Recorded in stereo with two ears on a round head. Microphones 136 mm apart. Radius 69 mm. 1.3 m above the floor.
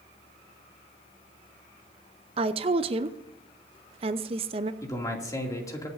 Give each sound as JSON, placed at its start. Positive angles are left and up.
{"t": 2.4, "sound": "a woman speaking", "side_deg": -35, "distance_m": 0.7}
{"t": 4.8, "sound": "a man speaking", "side_deg": 20, "distance_m": 2.5}